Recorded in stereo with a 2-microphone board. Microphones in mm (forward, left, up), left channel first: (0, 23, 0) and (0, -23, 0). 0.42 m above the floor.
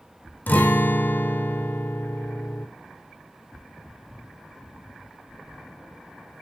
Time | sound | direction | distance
0.5 | a guitar | 40° left (ahead or behind) | 1.2 m